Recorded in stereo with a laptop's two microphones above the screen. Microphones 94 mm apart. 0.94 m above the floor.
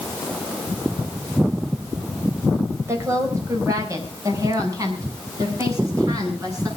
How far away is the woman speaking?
About 4 m.